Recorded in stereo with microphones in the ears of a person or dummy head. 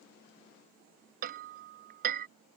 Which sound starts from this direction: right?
Hammering, at 1.2 s.